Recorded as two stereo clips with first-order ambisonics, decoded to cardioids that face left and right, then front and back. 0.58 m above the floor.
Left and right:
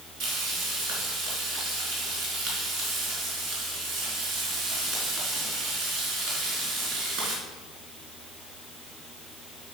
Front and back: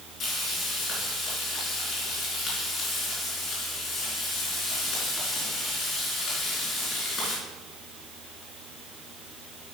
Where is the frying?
70° right, 4.5 m.